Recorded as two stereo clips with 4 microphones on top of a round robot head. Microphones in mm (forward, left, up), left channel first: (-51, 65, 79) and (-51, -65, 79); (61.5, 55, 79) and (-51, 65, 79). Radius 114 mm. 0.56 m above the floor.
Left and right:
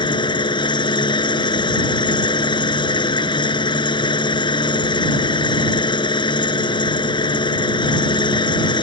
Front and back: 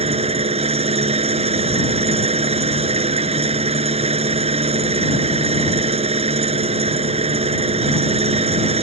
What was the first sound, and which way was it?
An engine running, 145° left.